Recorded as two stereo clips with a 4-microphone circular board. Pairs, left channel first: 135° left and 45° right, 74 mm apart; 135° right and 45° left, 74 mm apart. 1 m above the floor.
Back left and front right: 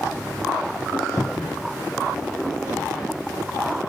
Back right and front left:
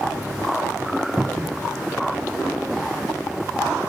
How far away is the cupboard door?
About 0.7 m.